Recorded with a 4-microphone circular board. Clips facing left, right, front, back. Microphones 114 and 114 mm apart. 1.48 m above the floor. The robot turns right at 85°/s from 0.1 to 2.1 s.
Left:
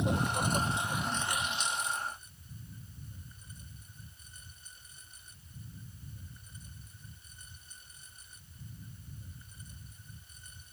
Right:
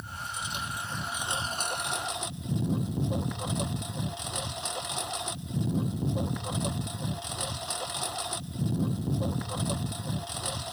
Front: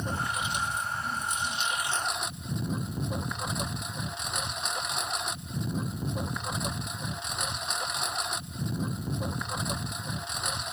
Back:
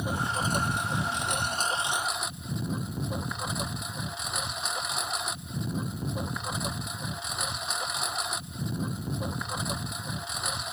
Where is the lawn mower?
100° left; by 10.7 s 90° right.